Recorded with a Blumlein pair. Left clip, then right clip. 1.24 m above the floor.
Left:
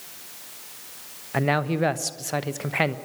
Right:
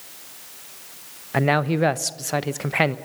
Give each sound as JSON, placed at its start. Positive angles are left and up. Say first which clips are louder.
{"t": 1.3, "sound": "a man speaking", "louder": "right 3 dB", "azimuth_deg": -10, "distance_m": 0.9}